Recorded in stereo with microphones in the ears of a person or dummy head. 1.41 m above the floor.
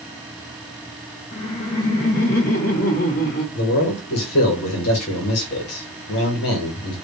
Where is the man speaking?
85° left, 1.9 m.